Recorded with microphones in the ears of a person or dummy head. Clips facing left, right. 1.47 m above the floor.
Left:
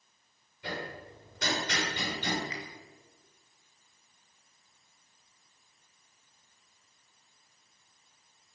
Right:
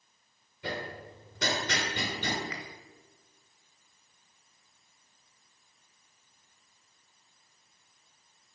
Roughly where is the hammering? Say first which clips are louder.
Right 2 dB; right.